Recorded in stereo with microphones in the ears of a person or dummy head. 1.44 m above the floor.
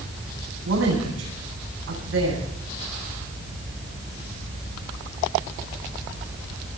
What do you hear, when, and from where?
0.7 s a woman speaking: 70° right (ahead or behind), 10 m